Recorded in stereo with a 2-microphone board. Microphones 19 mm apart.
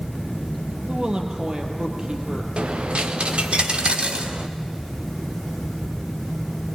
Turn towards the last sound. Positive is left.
turn(degrees=-65)  # may be behind; listen again after turning